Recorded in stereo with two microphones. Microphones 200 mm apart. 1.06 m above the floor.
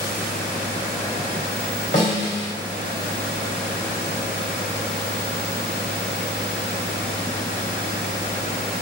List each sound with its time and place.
1.9 s a snare drum: 70° left (ahead or behind), 3 m